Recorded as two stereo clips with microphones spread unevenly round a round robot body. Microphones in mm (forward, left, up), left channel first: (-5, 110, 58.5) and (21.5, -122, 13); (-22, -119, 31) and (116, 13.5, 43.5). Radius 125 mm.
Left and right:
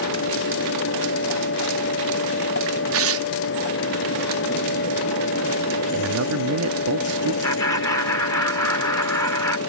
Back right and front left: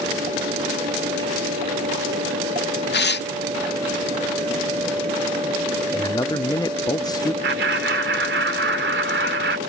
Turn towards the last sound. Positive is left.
turn(degrees=15)